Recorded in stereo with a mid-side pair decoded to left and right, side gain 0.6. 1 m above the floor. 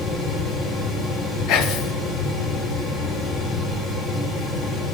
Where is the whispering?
70° left, 0.8 m.